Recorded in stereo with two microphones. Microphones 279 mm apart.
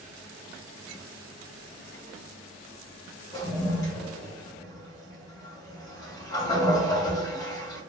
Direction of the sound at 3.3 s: 10° left (ahead or behind).